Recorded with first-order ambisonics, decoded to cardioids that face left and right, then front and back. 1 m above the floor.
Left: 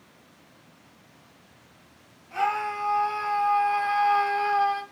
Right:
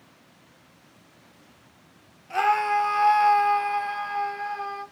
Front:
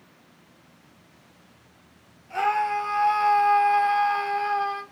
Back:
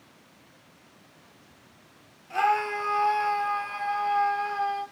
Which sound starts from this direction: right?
A scream, at 2.3 s.